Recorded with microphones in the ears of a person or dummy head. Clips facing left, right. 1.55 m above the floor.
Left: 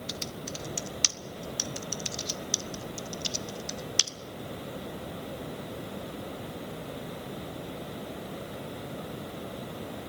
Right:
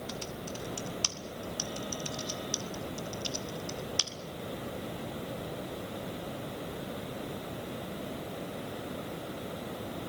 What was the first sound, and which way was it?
Typing on a keyboard, 30° left (ahead or behind).